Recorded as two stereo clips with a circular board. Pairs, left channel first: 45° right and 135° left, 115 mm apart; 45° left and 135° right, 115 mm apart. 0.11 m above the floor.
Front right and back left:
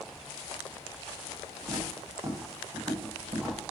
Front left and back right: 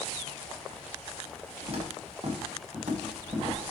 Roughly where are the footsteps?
Behind.